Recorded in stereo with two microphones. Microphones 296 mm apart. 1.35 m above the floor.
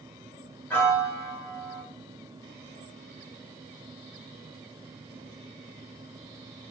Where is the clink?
No clink in this recording.